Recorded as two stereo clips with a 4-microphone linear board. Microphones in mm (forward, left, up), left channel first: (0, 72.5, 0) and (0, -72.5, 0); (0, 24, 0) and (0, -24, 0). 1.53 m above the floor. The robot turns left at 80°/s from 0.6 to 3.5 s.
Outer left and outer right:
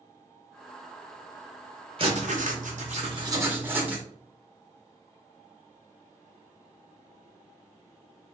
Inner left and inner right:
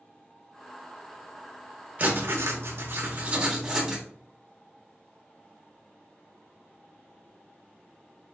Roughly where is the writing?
Ahead right.